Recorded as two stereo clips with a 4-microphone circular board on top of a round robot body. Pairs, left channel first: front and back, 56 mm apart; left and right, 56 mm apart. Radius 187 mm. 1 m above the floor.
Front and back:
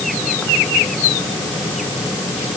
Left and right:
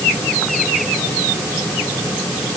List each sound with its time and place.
Only background noise.